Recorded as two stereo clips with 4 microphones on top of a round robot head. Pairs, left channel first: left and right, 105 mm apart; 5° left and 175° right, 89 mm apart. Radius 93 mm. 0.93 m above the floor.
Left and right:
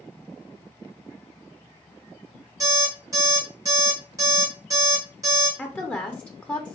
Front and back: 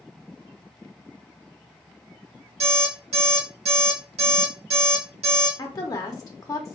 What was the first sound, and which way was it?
An alarm clock, 155° right.